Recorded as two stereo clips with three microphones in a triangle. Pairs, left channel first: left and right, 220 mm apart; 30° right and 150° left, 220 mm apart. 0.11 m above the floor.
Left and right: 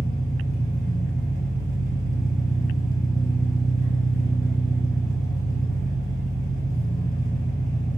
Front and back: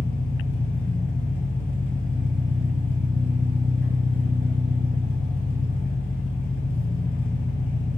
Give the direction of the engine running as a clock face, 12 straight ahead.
9 o'clock.